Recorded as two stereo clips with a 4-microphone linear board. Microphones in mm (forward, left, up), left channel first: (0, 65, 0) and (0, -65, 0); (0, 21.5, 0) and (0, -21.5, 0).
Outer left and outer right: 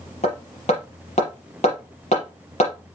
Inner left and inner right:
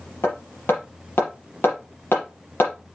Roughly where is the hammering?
Left.